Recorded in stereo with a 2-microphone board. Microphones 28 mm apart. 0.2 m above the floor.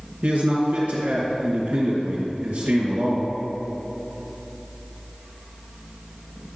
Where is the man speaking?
60° right (ahead or behind), 2.5 m.